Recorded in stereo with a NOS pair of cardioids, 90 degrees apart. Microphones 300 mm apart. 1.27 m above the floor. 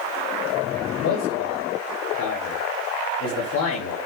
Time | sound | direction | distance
1.0 | a man speaking | 70° left | 3 m